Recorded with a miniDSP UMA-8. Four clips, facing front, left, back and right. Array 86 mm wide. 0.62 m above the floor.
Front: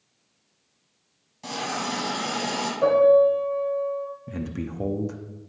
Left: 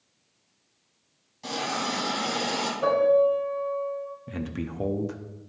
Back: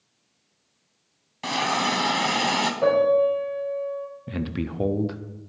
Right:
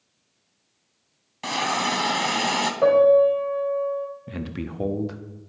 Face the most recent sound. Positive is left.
turn(degrees=-165)